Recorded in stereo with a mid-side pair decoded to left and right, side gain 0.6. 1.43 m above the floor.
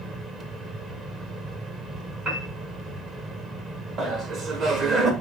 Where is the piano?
55° right, 4.5 m.